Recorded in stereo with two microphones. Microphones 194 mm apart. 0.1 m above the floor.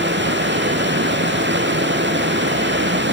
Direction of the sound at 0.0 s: 70° right (ahead or behind).